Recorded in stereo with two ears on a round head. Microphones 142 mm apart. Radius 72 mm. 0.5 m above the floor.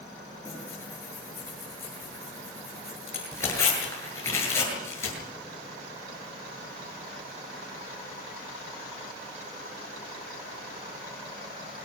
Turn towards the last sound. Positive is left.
turn(degrees=15)  # may be behind; listen again after turning